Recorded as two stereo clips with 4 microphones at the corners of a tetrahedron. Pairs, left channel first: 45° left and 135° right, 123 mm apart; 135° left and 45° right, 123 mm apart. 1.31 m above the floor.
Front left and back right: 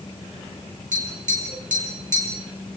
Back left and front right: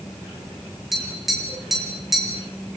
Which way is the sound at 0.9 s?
135° right.